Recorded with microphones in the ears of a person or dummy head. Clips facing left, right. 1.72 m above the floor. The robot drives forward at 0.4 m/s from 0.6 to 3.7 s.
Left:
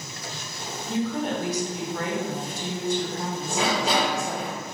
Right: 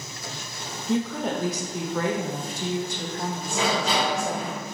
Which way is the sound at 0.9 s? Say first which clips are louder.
Right 1 dB; 60° right (ahead or behind).